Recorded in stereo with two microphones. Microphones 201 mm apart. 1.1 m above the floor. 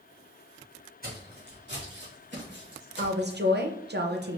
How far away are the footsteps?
About 2.5 m.